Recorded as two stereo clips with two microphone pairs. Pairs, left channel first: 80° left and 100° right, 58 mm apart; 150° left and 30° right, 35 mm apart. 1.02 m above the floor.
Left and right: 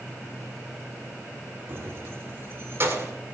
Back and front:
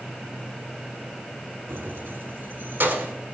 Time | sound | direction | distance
1.7 | keys jangling | 50° right | 1.4 m